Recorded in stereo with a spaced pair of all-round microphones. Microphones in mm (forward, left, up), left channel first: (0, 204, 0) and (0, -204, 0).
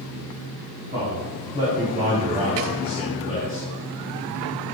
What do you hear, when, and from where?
0.9 s a man speaking: 20° right (ahead or behind), 4 m